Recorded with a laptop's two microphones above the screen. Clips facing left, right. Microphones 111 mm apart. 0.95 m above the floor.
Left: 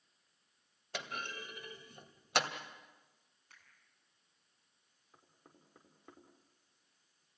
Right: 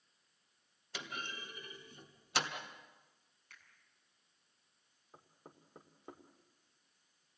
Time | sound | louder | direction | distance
0.9 | a clunk | left 3 dB | 55° left (ahead or behind) | 2 m
3.5 | a finger snap | right 2 dB | 30° left (ahead or behind) | 7.5 m
5.1 | knocking | right 5 dB | 25° right (ahead or behind) | 2.5 m